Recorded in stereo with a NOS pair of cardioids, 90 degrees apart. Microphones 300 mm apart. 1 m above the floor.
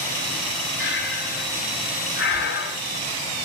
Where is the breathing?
40° left, 5 m.